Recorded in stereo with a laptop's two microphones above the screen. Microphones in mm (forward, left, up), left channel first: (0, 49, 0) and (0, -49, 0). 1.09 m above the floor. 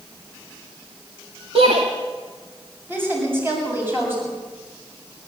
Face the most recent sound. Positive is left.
turn(degrees=-20)  # may be behind; listen again after turning